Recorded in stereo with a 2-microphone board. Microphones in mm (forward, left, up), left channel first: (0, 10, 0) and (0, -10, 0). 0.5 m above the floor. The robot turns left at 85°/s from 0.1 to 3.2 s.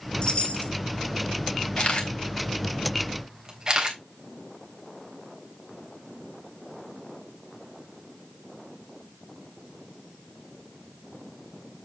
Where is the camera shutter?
65° left (ahead or behind), 3.5 m; by 4.0 s 35° right (ahead or behind), 3.5 m.